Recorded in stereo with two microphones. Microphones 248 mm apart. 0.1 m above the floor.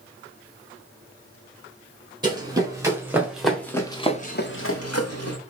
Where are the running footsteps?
15° right (ahead or behind), 3 m; by 5.4 s 85° left, 1.5 m.